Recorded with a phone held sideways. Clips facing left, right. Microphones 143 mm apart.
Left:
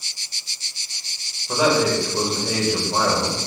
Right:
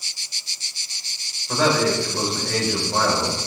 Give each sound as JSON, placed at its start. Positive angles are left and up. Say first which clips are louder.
{"t": 1.5, "sound": "a man speaking", "louder": "left 1 dB", "side_deg": 15, "distance_m": 4.0}